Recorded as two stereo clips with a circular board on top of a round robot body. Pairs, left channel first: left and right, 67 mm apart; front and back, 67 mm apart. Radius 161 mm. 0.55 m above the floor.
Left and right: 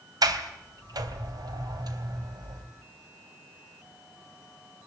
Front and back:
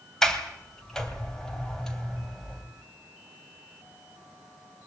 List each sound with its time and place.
0.2 s a sliding door: 80° right, 3 m